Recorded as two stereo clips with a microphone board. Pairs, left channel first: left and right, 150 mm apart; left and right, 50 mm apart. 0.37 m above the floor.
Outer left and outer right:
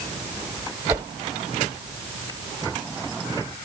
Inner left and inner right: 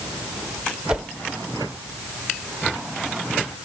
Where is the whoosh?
20° right (ahead or behind), 1.0 m.